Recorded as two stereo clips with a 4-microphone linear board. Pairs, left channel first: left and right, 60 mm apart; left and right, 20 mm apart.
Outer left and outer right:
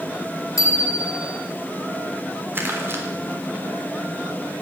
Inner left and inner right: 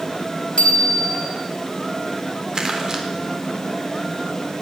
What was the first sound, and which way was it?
A bicycle bell, 70° left (ahead or behind).